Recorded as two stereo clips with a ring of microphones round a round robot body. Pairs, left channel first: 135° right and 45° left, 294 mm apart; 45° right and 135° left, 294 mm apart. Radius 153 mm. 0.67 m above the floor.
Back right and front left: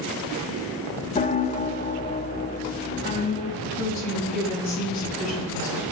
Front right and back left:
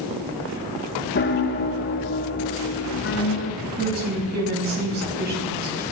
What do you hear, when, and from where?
1.1 s a piano: 80° right, 0.9 m
3.6 s a woman speaking: 165° right, 6 m